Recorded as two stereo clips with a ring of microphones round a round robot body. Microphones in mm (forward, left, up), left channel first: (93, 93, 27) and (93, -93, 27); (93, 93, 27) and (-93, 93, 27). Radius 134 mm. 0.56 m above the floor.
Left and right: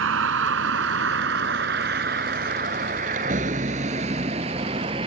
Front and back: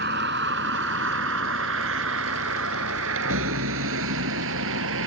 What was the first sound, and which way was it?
A vehicle, 125° right.